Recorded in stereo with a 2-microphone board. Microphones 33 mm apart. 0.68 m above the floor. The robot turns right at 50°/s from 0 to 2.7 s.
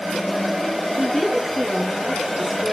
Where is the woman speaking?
150° left, 1.1 m; by 2.7 s 120° right, 1.1 m.